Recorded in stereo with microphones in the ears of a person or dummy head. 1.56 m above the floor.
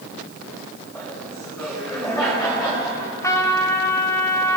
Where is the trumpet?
20° left (ahead or behind), 1.7 m.